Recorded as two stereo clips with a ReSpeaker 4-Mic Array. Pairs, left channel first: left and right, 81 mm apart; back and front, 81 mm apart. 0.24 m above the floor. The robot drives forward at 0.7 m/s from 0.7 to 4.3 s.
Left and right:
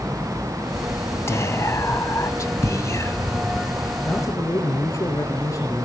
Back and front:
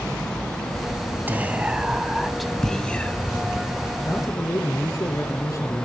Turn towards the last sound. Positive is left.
turn(degrees=135)